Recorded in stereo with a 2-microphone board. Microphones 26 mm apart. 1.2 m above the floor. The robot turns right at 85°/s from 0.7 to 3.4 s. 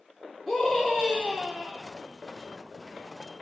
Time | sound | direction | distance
0.5 | a scream | straight behind | 3 m